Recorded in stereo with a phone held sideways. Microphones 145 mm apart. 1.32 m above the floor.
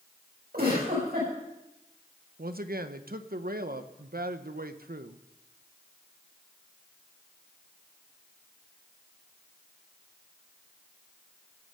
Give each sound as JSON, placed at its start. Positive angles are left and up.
{"t": 0.5, "sound": "a giggle", "side_deg": -80, "distance_m": 6.5}
{"t": 2.4, "sound": "a man speaking", "side_deg": -75, "distance_m": 0.9}